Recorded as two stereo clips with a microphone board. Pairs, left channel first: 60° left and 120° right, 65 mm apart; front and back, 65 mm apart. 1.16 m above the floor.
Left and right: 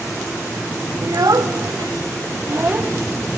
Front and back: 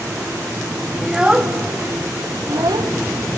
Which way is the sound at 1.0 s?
100° right.